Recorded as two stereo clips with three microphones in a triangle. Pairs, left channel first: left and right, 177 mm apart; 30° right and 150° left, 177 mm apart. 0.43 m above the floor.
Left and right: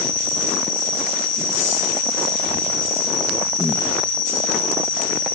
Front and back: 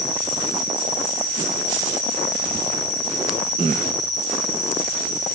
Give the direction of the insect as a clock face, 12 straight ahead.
1 o'clock.